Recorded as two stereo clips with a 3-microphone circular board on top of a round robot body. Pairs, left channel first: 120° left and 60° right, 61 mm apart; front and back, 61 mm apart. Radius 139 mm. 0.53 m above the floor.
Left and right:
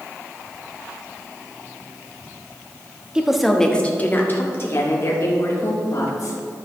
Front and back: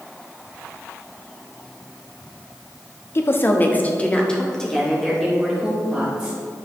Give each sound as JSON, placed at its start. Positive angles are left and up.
{"t": 3.1, "sound": "a woman speaking", "azimuth_deg": 10, "distance_m": 1.4}